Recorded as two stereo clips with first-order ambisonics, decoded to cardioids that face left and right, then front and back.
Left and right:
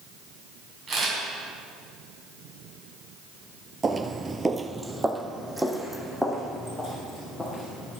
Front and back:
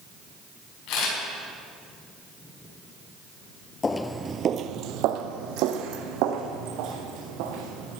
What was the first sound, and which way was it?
A camera shutter, 30° right.